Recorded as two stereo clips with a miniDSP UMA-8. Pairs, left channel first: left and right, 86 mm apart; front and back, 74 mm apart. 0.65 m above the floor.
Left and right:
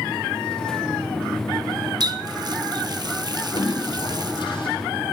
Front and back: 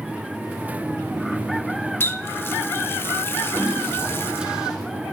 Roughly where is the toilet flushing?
Left.